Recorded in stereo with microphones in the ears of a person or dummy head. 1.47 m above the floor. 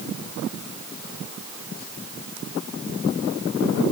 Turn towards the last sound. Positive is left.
No sound to turn to.